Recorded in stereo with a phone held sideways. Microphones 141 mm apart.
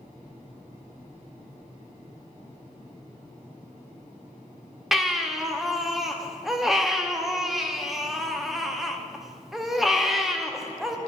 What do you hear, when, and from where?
4.9 s a baby crying: centre (ahead or behind), 0.5 m